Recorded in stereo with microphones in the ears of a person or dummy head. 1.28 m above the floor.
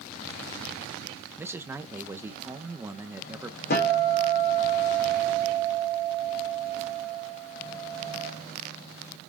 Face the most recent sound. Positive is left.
turn(degrees=50)  # may be behind; listen again after turning